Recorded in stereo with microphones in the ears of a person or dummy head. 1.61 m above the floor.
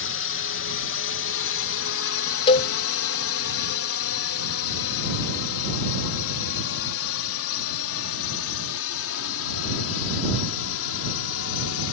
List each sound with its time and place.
0.0 s a drone: 60° left (ahead or behind); by 11.9 s 75° left (ahead or behind)
2.5 s a cowbell: 30° left (ahead or behind)